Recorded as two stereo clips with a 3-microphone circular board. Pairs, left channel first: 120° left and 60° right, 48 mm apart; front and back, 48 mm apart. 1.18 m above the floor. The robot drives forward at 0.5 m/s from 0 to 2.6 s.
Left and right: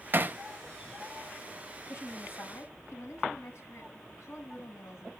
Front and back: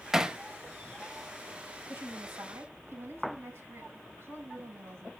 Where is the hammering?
100° right, 0.7 m; by 0.4 s 110° right, 0.7 m.